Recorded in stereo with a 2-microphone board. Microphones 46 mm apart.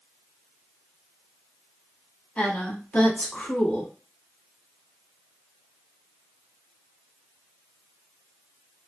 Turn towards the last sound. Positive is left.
turn(degrees=30)  # may be behind; listen again after turning